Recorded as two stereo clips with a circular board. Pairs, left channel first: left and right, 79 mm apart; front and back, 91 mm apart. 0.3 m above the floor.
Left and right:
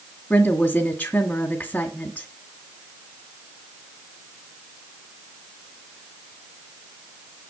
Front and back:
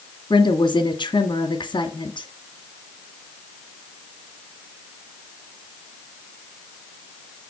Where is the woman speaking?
20° left, 2.0 m.